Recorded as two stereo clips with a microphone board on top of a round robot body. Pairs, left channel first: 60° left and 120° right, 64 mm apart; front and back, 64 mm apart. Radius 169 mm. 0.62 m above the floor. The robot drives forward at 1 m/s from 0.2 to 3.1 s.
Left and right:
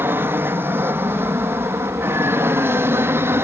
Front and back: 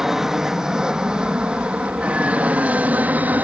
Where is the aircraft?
100° right; by 3.4 s 135° right.